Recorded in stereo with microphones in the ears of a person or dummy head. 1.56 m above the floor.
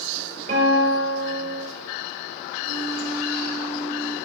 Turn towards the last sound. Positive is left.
turn(degrees=-50)  # may be behind; listen again after turning